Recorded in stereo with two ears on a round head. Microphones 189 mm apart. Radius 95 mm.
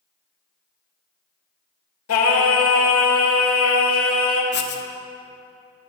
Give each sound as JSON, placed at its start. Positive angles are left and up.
{"t": 2.1, "sound": "singing", "side_deg": 70, "distance_m": 1.7}
{"t": 4.5, "sound": "writing", "side_deg": 55, "distance_m": 0.9}